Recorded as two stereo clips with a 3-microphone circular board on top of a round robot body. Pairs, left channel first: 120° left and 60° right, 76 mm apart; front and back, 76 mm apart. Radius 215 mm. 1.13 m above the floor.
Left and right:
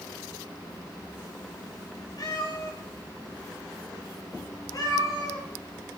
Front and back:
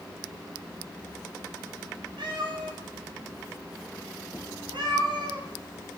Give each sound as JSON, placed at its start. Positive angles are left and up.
{"t": 2.2, "sound": "a cat meowing", "azimuth_deg": 165, "distance_m": 2.5}